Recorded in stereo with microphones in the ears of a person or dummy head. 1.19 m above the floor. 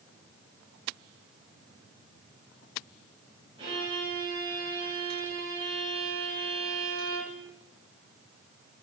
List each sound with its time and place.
3.6 s a violin: 30° right (ahead or behind), 5 m